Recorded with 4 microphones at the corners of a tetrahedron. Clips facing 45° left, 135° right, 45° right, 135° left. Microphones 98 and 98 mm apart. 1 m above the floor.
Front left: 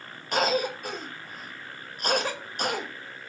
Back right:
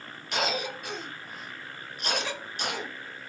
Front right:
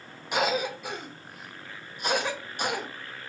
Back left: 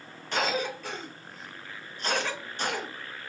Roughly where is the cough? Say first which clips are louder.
Front left 5 dB, front right 2 dB; ahead left.